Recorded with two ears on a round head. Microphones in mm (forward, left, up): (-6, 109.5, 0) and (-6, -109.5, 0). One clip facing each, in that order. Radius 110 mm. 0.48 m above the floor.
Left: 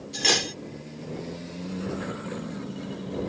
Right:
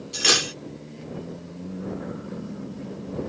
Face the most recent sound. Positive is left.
turn(degrees=-15)  # may be behind; listen again after turning